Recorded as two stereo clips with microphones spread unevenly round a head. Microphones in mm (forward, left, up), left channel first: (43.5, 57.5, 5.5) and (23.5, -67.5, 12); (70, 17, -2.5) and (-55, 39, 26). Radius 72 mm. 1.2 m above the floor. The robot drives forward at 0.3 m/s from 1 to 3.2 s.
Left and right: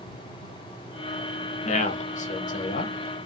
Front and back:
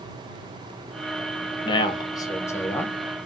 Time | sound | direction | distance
1.6 | a man speaking | 45° left | 0.8 m